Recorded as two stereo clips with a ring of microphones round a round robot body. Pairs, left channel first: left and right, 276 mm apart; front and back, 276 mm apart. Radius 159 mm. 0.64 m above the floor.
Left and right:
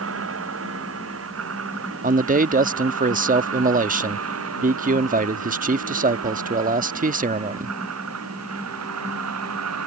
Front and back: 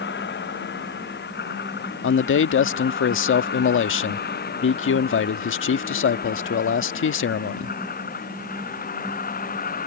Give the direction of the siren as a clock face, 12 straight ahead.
I don't hear a siren.